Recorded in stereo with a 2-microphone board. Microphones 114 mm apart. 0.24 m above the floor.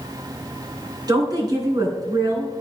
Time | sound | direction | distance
1.1 | a woman speaking | 35° right (ahead or behind) | 3 m